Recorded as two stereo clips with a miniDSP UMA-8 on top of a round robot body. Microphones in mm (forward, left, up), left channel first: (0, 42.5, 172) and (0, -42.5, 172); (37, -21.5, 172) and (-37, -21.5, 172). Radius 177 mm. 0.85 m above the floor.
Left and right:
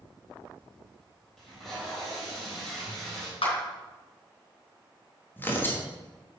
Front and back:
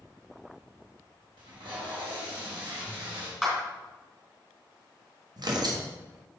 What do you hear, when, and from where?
1.4 s tape being pulled: straight behind, 3 m
3.4 s a clap: 95° left, 3 m
5.4 s tearing paper: 155° left, 1.4 m